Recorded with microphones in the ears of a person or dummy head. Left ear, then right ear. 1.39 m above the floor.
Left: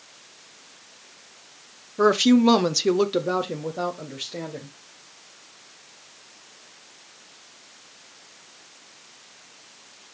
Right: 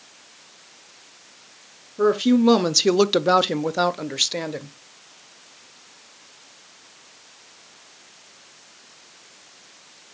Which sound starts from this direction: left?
A woman speaking, at 2.0 s.